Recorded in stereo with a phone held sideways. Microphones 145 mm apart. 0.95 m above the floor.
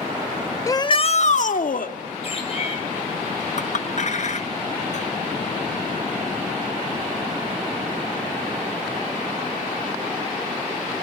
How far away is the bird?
About 5 m.